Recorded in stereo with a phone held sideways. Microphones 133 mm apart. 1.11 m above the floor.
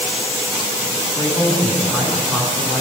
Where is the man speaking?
30° right (ahead or behind), 7.5 m.